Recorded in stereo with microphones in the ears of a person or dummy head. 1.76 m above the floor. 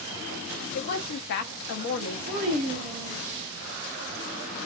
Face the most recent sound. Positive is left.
turn(degrees=-45)  # may be behind; listen again after turning